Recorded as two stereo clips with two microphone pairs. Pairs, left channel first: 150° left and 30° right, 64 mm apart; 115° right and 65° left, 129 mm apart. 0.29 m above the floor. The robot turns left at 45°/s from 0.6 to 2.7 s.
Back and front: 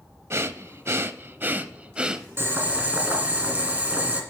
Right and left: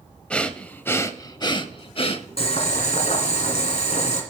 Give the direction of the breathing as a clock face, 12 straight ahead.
1 o'clock.